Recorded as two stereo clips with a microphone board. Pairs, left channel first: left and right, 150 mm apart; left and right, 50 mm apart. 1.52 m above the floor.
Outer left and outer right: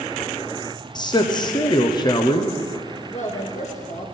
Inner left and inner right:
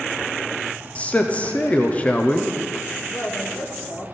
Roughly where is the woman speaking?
Left.